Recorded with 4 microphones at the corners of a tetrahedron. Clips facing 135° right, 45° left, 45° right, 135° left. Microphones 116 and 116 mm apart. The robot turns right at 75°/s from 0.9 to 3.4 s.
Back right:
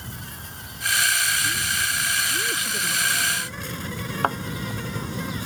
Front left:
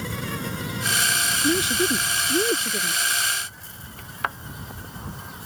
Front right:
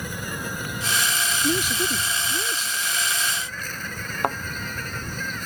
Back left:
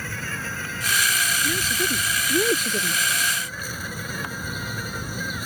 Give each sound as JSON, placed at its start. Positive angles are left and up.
{"t": 0.0, "sound": "an insect", "azimuth_deg": 25}
{"t": 1.4, "sound": "a woman speaking", "azimuth_deg": 15}
{"t": 4.2, "sound": "a thud", "azimuth_deg": -75}